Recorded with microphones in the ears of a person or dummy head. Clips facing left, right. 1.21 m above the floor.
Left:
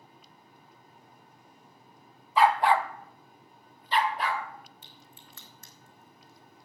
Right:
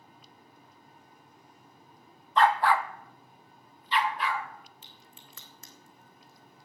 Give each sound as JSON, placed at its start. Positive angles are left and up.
{"t": 2.4, "sound": "a dog barking", "side_deg": 10, "distance_m": 0.8}
{"t": 4.8, "sound": "a crack", "side_deg": -60, "distance_m": 3.0}